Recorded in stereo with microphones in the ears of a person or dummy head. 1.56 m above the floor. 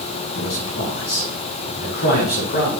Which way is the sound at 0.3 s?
65° left (ahead or behind).